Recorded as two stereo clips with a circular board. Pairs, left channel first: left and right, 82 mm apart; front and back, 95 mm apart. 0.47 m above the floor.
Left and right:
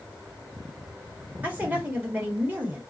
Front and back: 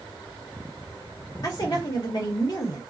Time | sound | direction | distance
1.4 | a woman speaking | 25° right | 1.6 m